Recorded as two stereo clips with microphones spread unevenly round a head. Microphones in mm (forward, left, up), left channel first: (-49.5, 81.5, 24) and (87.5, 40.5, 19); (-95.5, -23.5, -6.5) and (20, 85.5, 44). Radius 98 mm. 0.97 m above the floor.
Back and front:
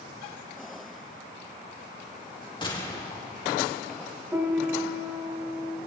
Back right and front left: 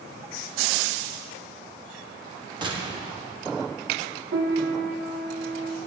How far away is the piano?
About 3 m.